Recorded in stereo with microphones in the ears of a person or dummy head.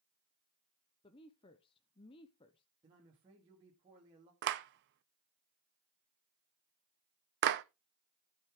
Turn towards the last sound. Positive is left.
turn(degrees=-60)  # may be behind; listen again after turning